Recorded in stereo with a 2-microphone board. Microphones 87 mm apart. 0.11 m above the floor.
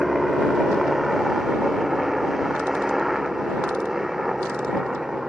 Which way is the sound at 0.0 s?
5° right (ahead or behind).